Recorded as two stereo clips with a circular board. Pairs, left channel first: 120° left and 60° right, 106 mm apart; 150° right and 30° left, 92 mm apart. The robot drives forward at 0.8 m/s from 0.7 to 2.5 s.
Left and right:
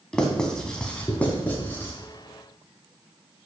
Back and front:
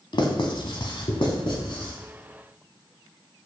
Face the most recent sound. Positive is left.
turn(degrees=-170)